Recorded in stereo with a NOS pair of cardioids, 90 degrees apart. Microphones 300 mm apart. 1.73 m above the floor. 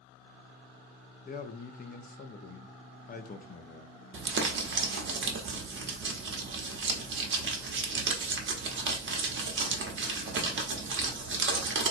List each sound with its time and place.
1.2 s a man speaking: 30° left, 0.7 m
4.1 s crumpling: 40° right, 0.8 m